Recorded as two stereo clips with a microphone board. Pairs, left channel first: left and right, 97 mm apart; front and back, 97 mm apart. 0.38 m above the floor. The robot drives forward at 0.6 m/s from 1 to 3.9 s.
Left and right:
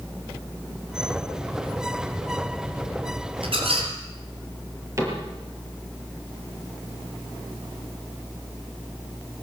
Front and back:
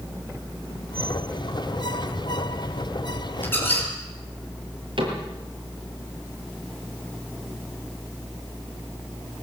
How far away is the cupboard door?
About 7 m.